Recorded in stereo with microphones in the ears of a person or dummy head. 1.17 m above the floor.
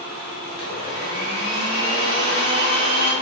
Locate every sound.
0.5 s a blender: 25° right (ahead or behind), 1.2 m